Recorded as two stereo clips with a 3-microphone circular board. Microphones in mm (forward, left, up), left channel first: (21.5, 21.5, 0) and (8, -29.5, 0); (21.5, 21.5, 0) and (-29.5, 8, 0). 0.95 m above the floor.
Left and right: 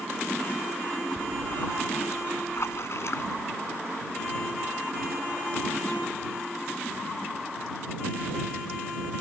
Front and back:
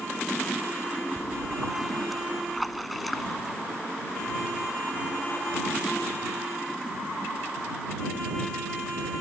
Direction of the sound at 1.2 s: 105° left.